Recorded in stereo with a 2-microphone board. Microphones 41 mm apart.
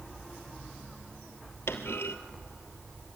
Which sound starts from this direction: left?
A clunk, at 1.7 s.